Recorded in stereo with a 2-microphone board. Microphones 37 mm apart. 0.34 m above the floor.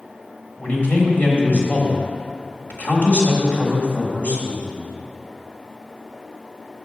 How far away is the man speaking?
About 1.4 m.